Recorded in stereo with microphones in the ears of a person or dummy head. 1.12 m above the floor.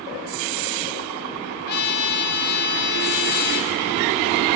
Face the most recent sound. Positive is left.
turn(degrees=55)  # may be behind; listen again after turning